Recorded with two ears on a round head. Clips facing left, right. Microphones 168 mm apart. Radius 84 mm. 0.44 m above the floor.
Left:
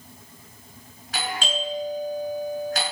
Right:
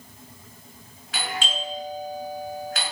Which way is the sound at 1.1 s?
35° left (ahead or behind).